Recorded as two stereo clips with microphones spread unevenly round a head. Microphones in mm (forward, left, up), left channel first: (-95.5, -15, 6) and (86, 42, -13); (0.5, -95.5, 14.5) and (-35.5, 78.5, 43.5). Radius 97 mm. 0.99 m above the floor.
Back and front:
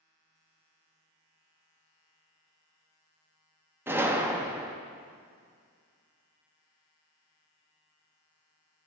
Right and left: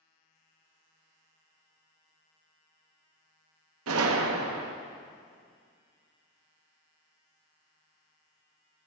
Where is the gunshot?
95° left, 0.8 m.